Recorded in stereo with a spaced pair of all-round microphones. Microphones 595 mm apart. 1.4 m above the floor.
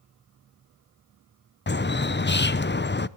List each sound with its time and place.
1.7 s a bird: 20° left (ahead or behind), 0.5 m